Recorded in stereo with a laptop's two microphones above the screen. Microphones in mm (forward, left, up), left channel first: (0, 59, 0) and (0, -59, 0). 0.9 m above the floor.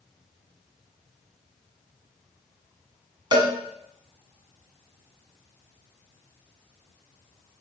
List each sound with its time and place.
3.3 s a cowbell: 40° right (ahead or behind), 1.2 m